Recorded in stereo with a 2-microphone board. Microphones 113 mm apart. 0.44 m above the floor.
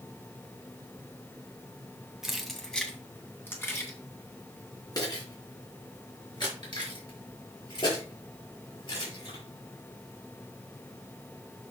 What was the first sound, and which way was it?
Keys jangling, 5° right (ahead or behind).